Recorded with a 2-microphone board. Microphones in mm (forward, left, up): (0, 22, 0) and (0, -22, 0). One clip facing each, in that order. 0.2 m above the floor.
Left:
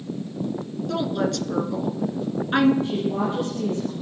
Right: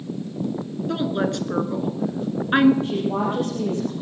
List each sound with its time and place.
0.9 s a woman speaking: 20° right (ahead or behind), 2 m
2.8 s a woman speaking: 35° right (ahead or behind), 5.5 m